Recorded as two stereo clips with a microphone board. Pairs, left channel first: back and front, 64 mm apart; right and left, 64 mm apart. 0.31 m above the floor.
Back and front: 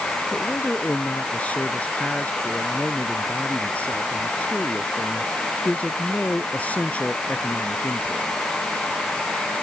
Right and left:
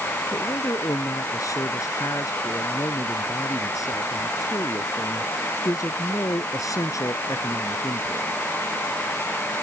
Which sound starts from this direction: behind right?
A man speaking, at 0.3 s.